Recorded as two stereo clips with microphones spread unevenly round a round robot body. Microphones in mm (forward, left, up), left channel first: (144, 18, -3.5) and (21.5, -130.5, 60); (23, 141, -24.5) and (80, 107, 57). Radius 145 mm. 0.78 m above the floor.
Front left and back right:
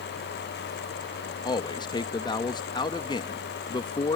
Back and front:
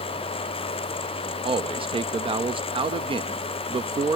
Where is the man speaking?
35° left.